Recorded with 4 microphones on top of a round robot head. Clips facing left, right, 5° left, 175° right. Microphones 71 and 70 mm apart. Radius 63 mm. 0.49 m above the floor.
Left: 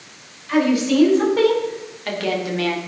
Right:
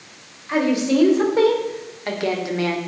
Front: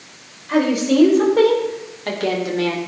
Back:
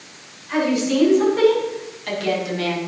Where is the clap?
No clap in this recording.